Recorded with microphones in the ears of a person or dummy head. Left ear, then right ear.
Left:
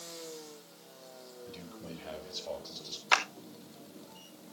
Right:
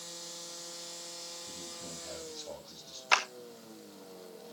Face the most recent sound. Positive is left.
turn(degrees=5)  # may be behind; listen again after turning